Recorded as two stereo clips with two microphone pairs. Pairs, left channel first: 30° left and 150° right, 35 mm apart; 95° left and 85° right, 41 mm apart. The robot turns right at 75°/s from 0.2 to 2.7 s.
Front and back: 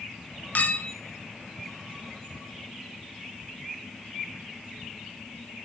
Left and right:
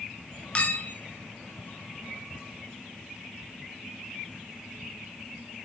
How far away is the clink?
About 0.7 m.